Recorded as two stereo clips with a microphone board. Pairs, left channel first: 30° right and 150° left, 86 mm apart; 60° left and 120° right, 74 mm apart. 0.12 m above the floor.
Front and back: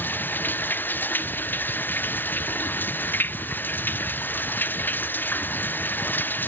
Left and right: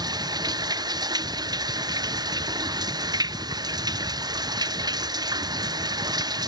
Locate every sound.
0.0 s running water: 95° right